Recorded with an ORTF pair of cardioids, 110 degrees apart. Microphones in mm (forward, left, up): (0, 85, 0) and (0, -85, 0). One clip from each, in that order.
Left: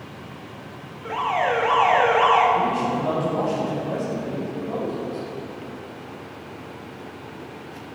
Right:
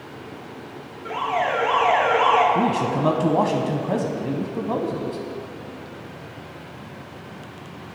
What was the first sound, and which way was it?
An alarm, 15° left.